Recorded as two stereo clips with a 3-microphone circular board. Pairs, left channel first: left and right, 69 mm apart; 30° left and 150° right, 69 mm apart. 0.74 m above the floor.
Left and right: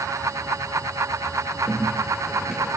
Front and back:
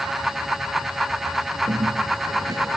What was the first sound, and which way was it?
A bird, 170° right.